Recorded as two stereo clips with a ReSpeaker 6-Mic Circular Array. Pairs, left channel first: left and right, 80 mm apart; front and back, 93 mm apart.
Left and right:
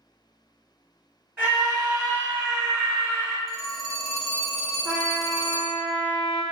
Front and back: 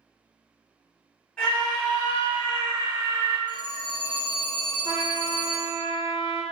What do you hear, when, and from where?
1.4 s a scream: 45° right, 1.4 m; by 3.4 s 160° left, 1.7 m
3.5 s a phone ringing: 10° left, 1.1 m
4.8 s a trumpet: 155° right, 1.2 m